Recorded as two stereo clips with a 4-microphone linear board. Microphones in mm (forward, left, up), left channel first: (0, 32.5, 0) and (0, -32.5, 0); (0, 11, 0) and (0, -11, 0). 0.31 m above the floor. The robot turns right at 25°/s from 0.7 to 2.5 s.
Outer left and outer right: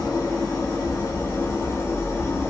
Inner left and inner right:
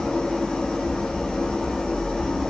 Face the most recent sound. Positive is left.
turn(degrees=130)